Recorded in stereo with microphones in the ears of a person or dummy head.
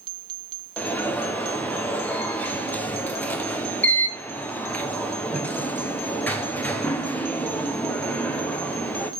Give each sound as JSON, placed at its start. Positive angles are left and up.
{"t": 0.8, "sound": "an alarm", "side_deg": 10, "distance_m": 0.8}